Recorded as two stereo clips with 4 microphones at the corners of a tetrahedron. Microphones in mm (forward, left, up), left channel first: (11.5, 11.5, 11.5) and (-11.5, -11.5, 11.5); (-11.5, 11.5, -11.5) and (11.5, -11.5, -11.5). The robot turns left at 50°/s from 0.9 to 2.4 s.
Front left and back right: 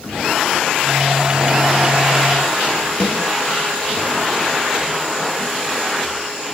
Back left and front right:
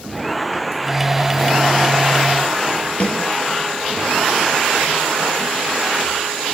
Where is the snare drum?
95° left, 4 m.